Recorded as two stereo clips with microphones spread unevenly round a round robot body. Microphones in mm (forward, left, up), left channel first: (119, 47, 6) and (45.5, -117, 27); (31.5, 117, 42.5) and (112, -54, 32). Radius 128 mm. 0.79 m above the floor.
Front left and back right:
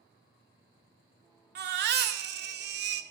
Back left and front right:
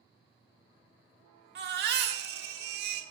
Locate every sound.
1.6 s a baby crying: 90° right, 0.6 m